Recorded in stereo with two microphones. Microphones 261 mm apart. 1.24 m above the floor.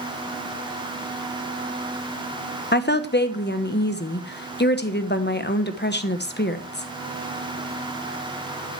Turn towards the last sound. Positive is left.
turn(degrees=40)  # may be behind; listen again after turning